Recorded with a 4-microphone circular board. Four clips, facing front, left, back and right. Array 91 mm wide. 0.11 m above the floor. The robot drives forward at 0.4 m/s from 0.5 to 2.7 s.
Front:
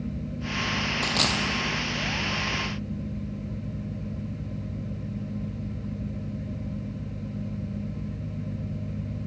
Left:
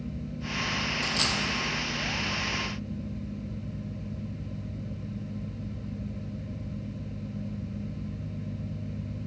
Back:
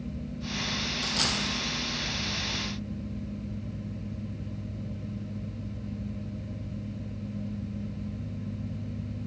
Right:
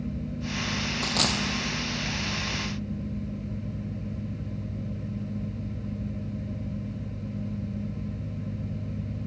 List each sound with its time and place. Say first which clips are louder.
1.0 s a dropped coin: right 5 dB, front 4 dB; 45° right, 0.7 m; by 1.4 s 55° right, 0.6 m